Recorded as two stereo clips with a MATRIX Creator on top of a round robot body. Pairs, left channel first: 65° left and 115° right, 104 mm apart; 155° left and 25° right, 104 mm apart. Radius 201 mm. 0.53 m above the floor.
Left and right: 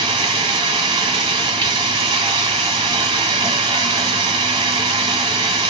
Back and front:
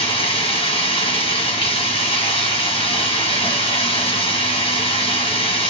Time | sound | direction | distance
0.0 | running water | 160° right | 1.4 m